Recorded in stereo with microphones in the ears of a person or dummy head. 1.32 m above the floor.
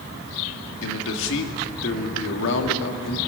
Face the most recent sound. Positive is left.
turn(degrees=70)  # may be behind; listen again after turning